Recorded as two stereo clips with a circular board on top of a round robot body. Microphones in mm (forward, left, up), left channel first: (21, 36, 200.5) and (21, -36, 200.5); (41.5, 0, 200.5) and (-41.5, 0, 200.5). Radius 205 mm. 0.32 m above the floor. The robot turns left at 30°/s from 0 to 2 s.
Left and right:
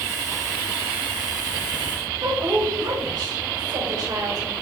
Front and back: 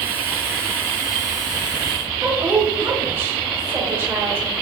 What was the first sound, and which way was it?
A woman speaking, 115° right.